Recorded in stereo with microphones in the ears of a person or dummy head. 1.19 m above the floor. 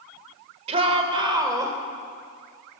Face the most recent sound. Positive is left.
turn(degrees=-15)  # may be behind; listen again after turning